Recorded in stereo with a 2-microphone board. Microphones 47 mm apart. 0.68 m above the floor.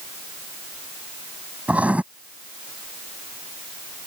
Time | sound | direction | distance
1.7 | writing | 30° right (ahead or behind) | ?